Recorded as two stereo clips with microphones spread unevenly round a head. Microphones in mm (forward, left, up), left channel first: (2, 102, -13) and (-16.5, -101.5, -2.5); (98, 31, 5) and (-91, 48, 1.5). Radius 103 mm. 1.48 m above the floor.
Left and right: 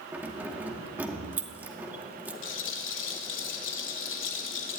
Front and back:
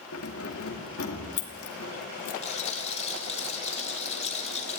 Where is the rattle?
50° left, 3 m.